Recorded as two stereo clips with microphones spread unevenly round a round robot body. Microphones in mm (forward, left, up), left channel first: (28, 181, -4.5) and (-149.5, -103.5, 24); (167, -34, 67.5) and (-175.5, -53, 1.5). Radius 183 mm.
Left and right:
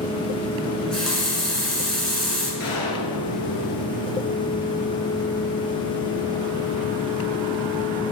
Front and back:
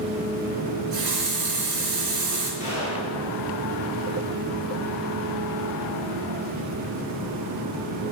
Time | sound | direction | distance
0.7 | a running tap | 145° left | 2.5 m
2.6 | a gunshot | 100° left | 2.5 m